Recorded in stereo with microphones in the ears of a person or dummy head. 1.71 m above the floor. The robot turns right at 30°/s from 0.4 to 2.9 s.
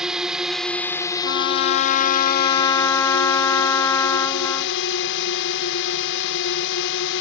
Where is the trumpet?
115° left; by 4.8 s 165° left.